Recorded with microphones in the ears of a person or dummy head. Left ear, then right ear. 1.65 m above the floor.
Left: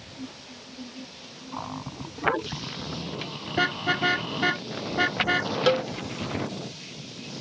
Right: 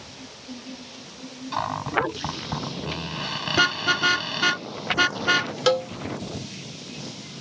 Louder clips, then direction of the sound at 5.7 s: Right 2 dB; 15° right (ahead or behind).